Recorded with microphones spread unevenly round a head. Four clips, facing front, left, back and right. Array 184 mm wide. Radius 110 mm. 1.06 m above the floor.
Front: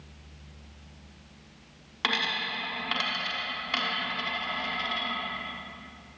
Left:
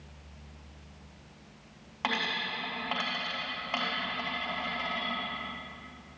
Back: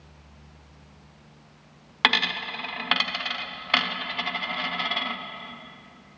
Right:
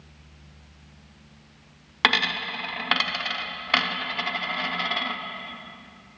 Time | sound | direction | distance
2.0 | a dropped coin | 115° right | 0.9 m